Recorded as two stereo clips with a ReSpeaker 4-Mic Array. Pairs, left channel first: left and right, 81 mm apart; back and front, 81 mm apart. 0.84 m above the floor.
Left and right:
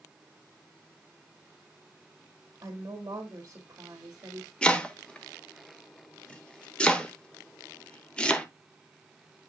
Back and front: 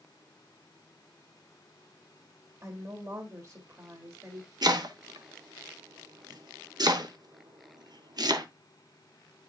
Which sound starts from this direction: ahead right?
A woman speaking, at 2.6 s.